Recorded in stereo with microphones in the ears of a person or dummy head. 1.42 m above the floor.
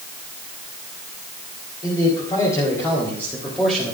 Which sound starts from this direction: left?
A man speaking, at 1.8 s.